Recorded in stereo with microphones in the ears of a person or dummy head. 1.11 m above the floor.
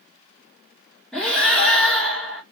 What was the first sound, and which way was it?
Breathing, 5° left (ahead or behind).